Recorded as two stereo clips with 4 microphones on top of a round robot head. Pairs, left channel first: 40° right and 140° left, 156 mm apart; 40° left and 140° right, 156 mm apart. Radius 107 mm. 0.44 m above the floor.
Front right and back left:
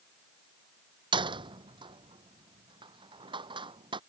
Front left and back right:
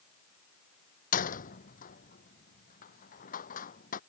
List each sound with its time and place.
1.1 s a door slam: 80° left